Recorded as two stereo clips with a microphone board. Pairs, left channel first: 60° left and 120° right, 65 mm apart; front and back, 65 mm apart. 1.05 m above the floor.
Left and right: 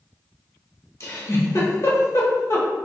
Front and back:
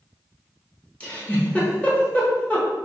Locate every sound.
1.0 s a giggle: 60° left, 0.9 m